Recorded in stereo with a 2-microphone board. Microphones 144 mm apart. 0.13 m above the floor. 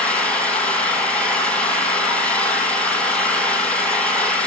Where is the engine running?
10° left (ahead or behind), 2 m.